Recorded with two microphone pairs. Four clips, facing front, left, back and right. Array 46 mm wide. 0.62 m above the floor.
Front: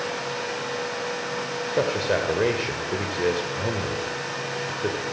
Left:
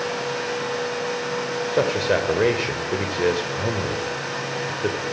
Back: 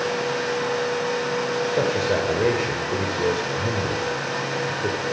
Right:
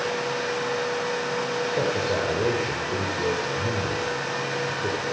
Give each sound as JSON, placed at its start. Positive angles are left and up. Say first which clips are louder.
{"t": 1.7, "sound": "a man speaking", "louder": "left 6 dB, front 1 dB", "azimuth_deg": 80, "distance_m": 2.5}